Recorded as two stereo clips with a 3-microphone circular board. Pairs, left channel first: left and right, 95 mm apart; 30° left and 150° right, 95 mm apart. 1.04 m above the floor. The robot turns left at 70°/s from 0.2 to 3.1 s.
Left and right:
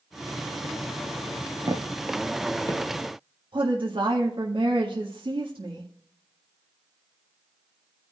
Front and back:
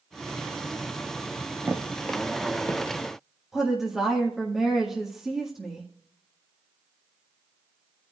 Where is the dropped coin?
No dropped coin in this recording.